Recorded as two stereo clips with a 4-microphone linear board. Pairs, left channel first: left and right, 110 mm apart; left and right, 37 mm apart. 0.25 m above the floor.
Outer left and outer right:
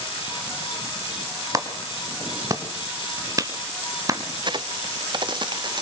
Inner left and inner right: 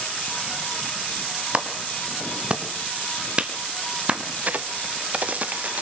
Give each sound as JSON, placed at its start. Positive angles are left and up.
{"t": 1.5, "sound": "a clap", "side_deg": -30, "distance_m": 1.8}
{"t": 4.4, "sound": "a crack", "side_deg": -40, "distance_m": 0.7}